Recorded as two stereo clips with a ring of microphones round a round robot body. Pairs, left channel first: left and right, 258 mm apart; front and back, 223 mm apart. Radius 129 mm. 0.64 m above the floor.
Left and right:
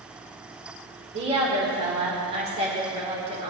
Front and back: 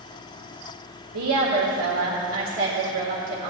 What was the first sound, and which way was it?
A woman speaking, 155° right.